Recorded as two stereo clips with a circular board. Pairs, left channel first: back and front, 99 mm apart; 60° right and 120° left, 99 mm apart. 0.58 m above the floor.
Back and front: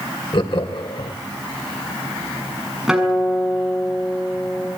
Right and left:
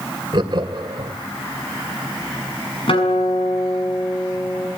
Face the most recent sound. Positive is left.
turn(degrees=-85)